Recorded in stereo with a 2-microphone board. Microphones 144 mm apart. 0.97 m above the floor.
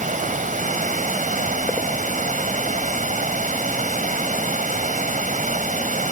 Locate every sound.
0.0 s running water: 60° right (ahead or behind)